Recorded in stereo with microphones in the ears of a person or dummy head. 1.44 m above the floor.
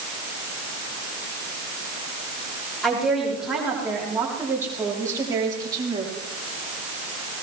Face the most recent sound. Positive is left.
turn(degrees=-25)  # may be behind; listen again after turning